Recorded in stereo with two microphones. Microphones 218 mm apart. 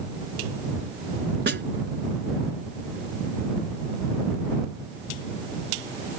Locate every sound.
1.5 s a snare drum: 55° right (ahead or behind)